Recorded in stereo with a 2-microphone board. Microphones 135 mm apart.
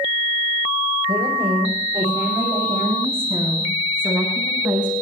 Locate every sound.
1.1 s a woman speaking: 35° right (ahead or behind), 5.5 m; by 4.9 s 10° right (ahead or behind), 8 m